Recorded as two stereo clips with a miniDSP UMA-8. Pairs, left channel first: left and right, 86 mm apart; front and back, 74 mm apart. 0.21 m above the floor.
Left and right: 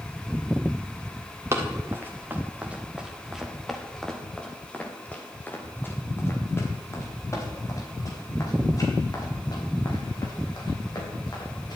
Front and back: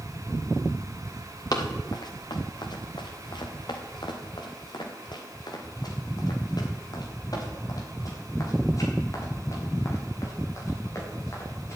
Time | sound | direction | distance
1.5 | running footsteps | 30° right | 4 m